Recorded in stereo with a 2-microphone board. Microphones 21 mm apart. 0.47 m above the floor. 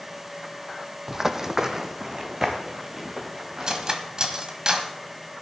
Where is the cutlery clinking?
35° right (ahead or behind), 1.5 m.